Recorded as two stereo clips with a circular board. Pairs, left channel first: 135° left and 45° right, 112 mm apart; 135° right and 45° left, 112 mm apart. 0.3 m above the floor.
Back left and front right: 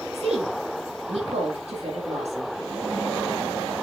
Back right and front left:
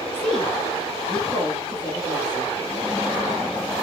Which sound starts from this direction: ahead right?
A woman speaking, at 0.1 s.